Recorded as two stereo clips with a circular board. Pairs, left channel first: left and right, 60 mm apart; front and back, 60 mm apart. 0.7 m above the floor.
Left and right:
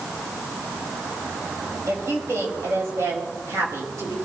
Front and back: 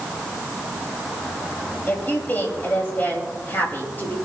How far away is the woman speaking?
About 4.5 m.